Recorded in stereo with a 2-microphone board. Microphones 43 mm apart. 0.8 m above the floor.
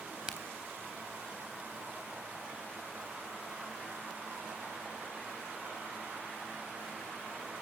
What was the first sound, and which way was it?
A crack, 15° right (ahead or behind).